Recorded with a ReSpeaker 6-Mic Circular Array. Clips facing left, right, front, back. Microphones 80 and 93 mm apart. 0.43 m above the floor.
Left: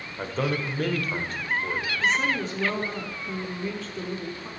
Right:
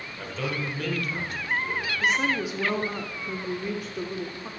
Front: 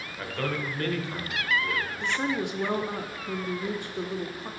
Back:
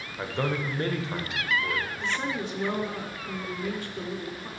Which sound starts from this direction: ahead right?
A woman speaking, at 2.0 s.